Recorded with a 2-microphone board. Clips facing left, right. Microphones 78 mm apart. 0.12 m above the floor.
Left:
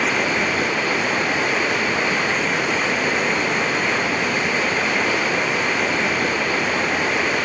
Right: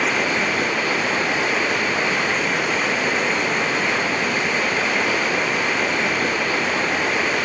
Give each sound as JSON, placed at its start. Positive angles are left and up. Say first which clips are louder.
{"t": 0.0, "sound": "running water", "louder": "even", "side_deg": 0}